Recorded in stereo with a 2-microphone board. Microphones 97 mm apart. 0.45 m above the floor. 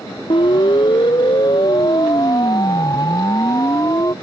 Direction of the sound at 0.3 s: 55° left (ahead or behind).